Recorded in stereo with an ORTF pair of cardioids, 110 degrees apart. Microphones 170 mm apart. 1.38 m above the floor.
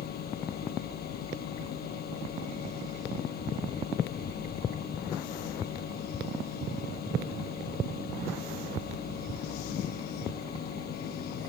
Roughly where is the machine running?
Ahead left.